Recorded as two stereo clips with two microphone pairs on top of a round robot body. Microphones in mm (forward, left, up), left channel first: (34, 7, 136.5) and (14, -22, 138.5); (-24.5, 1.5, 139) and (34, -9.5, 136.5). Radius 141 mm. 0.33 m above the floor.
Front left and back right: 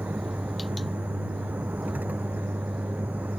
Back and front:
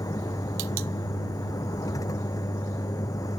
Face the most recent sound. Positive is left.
turn(degrees=-170)